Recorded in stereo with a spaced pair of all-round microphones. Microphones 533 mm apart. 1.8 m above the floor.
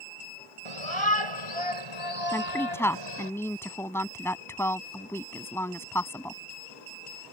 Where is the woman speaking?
5° left (ahead or behind).